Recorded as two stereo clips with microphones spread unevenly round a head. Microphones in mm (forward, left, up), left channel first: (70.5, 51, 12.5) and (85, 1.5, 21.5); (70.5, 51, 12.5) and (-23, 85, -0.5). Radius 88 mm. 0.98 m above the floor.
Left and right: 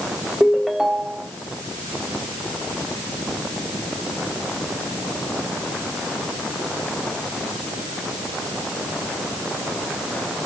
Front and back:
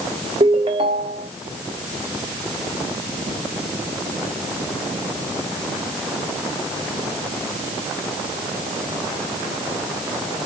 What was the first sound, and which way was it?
A ringtone, 155° right.